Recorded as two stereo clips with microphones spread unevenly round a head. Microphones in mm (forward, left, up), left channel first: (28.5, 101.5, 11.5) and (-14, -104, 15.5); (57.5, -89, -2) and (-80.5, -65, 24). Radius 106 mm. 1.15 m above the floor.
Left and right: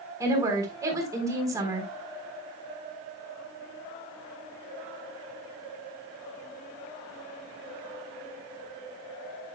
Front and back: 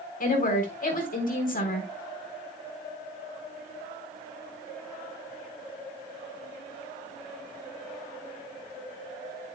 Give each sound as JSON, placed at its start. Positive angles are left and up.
{"t": 0.2, "sound": "a woman speaking", "azimuth_deg": -25, "distance_m": 3.5}